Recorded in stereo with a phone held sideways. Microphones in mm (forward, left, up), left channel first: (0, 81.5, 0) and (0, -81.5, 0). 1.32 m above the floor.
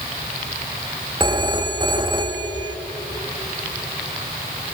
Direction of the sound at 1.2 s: 30° right (ahead or behind).